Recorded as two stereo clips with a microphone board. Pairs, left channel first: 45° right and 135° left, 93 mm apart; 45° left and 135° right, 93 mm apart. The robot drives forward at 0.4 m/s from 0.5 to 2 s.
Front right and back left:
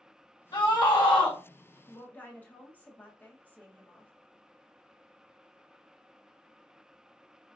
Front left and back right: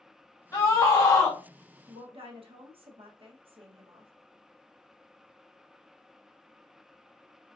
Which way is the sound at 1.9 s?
115° right.